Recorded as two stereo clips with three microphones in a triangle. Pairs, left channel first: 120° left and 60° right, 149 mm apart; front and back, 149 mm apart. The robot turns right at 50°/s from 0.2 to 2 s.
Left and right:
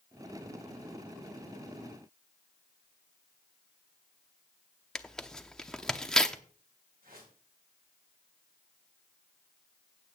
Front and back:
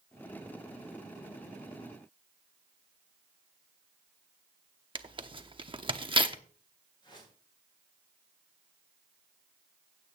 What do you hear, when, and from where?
5.0 s tearing paper: 155° right, 0.8 m
7.0 s a whoosh: 55° right, 9 m